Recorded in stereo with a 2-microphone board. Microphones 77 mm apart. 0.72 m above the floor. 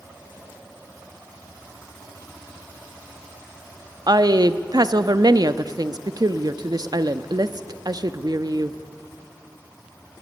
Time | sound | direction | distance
4.1 | a woman speaking | 55° right (ahead or behind) | 0.7 m